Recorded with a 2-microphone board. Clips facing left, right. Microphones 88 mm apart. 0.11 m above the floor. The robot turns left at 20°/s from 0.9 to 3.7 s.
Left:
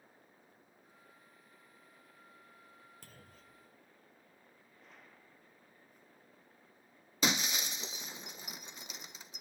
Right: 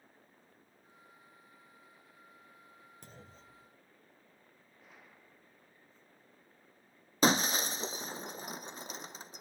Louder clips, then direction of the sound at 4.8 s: Right 1 dB; 5° right (ahead or behind).